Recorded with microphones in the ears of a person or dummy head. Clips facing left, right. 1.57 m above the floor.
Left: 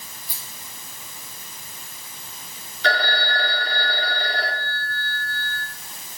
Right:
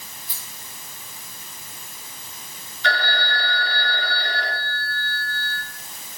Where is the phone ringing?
40° left (ahead or behind), 1.9 m.